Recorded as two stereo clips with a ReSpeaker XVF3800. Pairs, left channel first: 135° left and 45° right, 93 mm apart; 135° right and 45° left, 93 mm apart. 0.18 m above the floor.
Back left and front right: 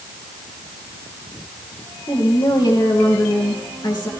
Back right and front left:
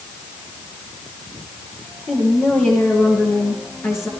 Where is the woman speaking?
170° left, 3 m.